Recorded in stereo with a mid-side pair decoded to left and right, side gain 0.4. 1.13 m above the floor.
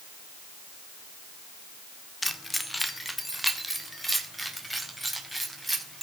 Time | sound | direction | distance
2.2 | keys jangling | 15° left | 1.9 m